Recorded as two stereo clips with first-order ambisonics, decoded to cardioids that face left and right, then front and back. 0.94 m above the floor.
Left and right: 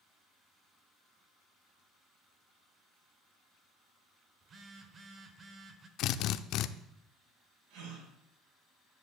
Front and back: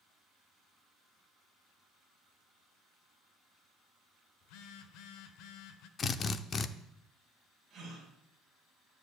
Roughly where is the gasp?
Right.